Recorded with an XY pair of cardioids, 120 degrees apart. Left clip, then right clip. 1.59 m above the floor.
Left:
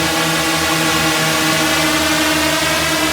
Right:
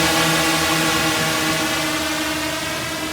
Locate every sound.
0.0 s a drone: straight ahead; by 3.1 s 55° left